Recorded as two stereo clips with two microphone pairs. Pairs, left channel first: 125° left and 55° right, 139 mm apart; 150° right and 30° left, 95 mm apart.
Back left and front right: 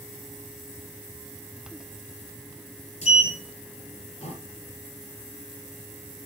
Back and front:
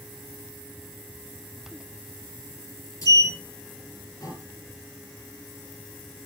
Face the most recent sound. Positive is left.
turn(degrees=165)